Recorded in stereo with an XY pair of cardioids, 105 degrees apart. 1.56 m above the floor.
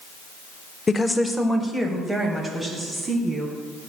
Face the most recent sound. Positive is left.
turn(degrees=-30)